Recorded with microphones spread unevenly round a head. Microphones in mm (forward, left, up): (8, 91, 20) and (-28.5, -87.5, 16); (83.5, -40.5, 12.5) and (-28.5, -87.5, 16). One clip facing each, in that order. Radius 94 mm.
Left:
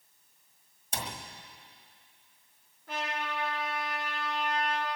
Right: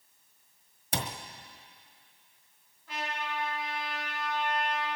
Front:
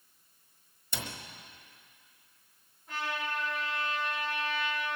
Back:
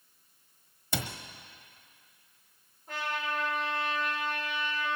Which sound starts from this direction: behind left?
A trumpet, at 2.9 s.